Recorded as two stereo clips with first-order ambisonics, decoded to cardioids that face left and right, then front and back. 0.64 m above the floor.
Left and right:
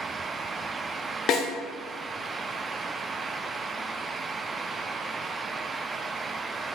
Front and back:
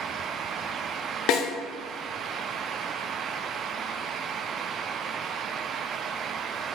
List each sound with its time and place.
1.3 s a snare drum: 35° left, 0.6 m